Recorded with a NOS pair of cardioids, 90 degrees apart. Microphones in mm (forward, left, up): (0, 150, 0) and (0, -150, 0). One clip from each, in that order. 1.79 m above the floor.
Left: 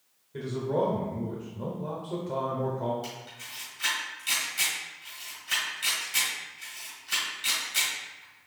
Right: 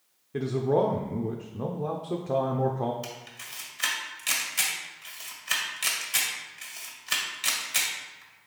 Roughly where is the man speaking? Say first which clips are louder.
Right 4 dB; ahead right.